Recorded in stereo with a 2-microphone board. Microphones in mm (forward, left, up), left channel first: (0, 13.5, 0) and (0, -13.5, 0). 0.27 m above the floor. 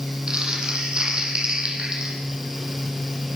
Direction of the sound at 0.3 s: 35° right (ahead or behind).